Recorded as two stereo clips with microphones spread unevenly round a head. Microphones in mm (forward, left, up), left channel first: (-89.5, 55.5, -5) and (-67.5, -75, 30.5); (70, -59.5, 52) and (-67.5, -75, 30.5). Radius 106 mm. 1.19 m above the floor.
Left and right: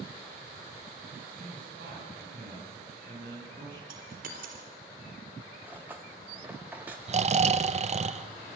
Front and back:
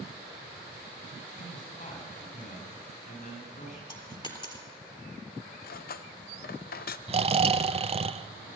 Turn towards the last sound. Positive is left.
turn(degrees=-125)